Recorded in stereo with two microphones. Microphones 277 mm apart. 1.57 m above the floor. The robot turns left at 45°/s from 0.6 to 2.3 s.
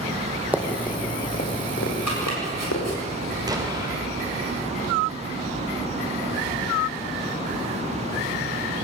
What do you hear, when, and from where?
0.5 s running footsteps: 5° right (ahead or behind), 3 m; by 2.9 s 75° left (ahead or behind), 5.5 m
2.1 s chopping: 85° left, 7.5 m; by 3.0 s 75° left (ahead or behind), 7.5 m
3.5 s an explosion: 15° right (ahead or behind), 4 m